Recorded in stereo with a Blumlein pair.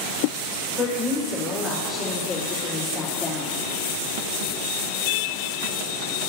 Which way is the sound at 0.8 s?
15° left.